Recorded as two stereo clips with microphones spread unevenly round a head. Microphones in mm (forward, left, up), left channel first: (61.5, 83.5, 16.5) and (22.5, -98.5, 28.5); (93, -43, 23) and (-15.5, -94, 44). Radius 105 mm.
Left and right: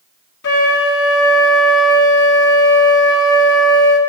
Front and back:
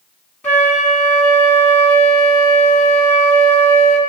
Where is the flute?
105° left, 1.9 m.